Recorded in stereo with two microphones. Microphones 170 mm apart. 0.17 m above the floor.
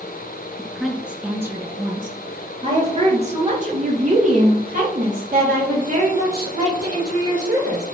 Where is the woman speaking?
5° left (ahead or behind), 1.6 m; by 7.8 s 65° right (ahead or behind), 5.5 m.